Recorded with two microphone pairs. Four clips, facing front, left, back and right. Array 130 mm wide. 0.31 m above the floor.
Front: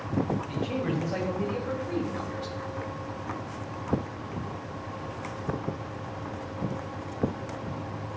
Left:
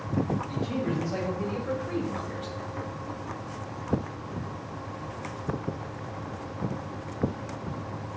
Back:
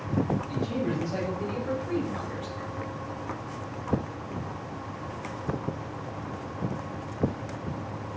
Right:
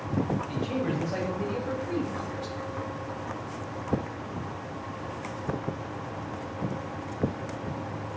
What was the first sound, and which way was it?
A man speaking, 35° right.